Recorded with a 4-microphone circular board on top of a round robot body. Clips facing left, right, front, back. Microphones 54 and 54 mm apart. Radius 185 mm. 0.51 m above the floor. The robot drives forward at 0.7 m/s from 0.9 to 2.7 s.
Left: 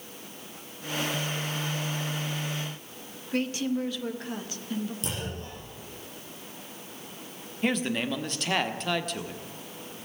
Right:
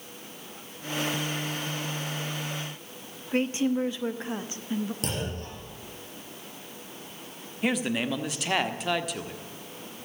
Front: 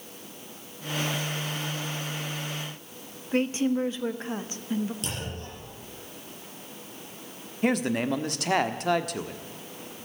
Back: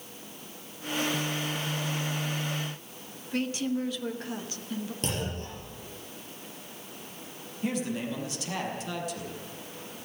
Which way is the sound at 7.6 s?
5° right.